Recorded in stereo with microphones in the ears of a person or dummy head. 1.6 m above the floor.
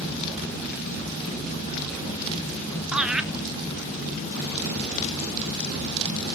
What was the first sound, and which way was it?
Laughter, 5° right (ahead or behind).